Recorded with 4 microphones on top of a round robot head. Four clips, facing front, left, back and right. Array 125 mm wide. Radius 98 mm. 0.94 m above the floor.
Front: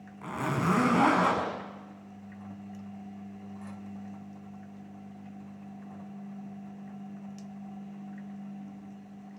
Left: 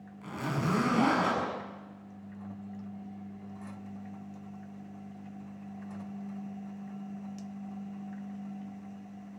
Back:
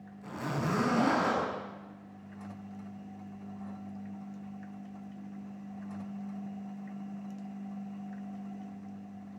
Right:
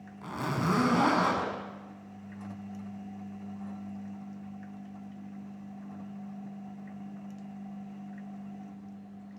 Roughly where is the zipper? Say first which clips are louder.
Right 2 dB, front 4 dB; ahead right.